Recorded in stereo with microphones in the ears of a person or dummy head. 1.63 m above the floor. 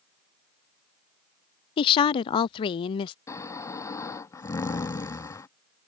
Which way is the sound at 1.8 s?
40° left (ahead or behind).